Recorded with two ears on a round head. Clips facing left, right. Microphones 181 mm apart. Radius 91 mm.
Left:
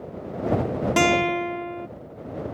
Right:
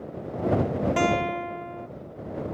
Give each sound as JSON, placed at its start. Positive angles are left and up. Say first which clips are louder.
{"t": 1.0, "sound": "a guitar", "louder": "left 4 dB", "side_deg": 55}